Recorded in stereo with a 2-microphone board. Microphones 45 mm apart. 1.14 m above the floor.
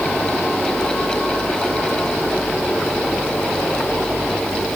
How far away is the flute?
I don't hear a flute.